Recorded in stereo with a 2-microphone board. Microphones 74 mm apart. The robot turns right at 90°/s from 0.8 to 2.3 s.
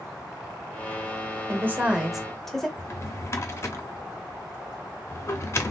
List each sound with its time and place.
1.5 s a woman speaking: 70° right, 0.9 m; by 2.7 s 5° left, 0.9 m
2.8 s a drawer: 35° left (ahead or behind), 0.6 m